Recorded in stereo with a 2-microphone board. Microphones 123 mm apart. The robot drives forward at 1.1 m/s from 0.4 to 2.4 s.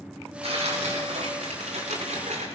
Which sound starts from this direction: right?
Tearing paper, at 0.4 s.